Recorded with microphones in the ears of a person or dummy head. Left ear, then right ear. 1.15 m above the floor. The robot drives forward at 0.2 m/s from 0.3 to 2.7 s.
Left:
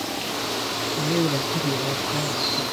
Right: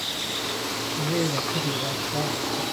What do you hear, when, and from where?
1.0 s a man speaking: 30° left (ahead or behind), 0.7 m; by 2.6 s 20° left (ahead or behind), 0.9 m